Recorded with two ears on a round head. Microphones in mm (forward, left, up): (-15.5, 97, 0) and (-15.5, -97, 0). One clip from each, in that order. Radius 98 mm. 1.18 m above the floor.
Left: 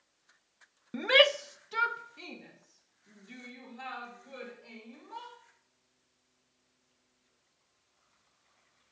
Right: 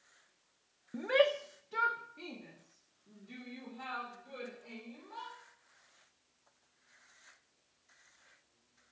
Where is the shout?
65° left (ahead or behind), 0.5 m; by 5.3 s 25° left (ahead or behind), 5.5 m.